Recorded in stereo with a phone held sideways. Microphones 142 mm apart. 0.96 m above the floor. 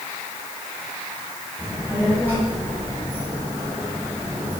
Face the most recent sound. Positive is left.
turn(degrees=-5)  # may be behind; listen again after turning